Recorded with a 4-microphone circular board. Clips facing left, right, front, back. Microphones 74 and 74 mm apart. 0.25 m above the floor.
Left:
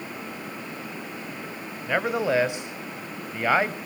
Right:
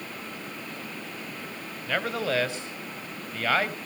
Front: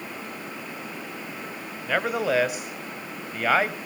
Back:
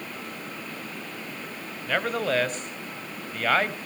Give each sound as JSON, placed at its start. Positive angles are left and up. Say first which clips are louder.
{"t": 1.9, "sound": "a man speaking", "louder": "left 4 dB, front 2 dB", "azimuth_deg": 60, "distance_m": 1.1}